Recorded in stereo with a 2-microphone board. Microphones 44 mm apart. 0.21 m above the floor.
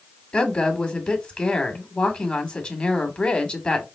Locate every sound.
0.3 s a woman speaking: 25° left (ahead or behind), 1.4 m